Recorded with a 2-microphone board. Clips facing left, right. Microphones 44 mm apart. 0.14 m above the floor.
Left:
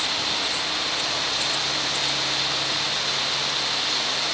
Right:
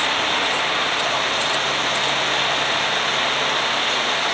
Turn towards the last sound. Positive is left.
turn(degrees=-40)  # may be behind; listen again after turning